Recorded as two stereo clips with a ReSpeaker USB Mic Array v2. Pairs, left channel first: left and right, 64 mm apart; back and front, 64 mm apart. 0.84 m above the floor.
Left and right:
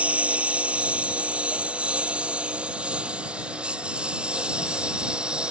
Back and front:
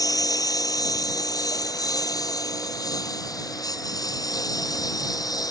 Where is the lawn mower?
160° right; by 5.5 s 165° right.